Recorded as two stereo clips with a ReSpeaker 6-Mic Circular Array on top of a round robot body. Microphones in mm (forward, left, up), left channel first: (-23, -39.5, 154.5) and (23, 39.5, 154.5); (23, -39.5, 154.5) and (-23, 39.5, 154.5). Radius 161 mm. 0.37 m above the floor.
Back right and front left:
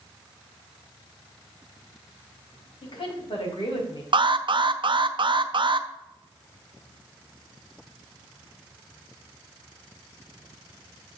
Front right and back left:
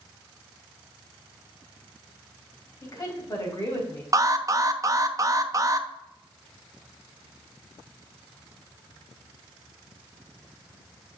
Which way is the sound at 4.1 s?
75° left.